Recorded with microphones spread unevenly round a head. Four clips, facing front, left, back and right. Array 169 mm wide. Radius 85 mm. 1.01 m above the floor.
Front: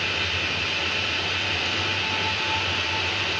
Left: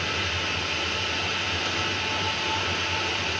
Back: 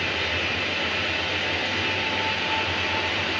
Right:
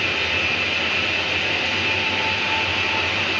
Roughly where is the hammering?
I don't hear hammering.